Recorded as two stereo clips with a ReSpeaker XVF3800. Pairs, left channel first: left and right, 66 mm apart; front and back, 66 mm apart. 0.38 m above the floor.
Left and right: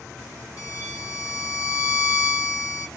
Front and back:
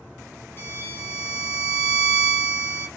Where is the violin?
55° left, 0.7 m.